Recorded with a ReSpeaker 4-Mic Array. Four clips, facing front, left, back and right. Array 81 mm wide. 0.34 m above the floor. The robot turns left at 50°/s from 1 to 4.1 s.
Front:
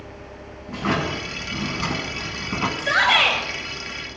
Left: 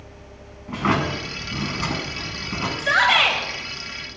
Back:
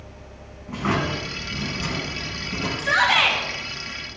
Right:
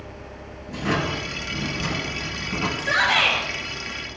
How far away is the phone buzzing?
No phone buzzing in this recording.